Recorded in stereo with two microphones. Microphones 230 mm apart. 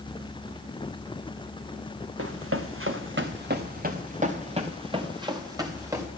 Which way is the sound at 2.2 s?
75° right (ahead or behind).